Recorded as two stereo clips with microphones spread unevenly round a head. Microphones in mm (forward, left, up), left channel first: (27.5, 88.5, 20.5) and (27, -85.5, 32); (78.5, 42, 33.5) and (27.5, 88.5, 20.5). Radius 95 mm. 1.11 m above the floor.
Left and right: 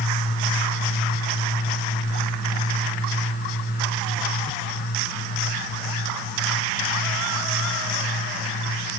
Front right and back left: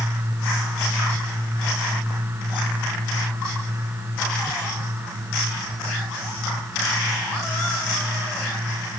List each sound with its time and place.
Only background noise.